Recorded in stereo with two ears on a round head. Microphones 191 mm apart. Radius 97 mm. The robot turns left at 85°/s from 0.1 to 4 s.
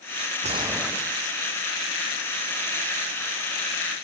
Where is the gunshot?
145° right; by 1.4 s 135° left.